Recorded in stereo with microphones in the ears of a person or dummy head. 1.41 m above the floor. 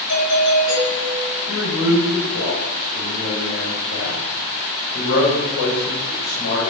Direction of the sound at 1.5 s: 90° left.